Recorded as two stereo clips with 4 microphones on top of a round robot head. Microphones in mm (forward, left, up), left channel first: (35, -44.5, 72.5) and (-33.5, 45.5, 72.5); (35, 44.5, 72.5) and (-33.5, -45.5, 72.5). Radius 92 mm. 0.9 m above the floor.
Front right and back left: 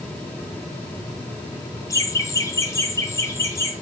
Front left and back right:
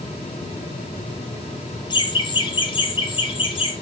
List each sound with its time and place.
1.9 s laughter: 5° left, 1.4 m; by 3.7 s 10° left, 2.5 m